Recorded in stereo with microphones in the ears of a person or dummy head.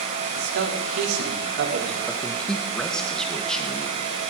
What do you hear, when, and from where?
0.3 s a man speaking: 70° right (ahead or behind), 3.5 m; by 2.0 s 65° right (ahead or behind), 4.5 m
2.1 s a man speaking: 10° left (ahead or behind), 2 m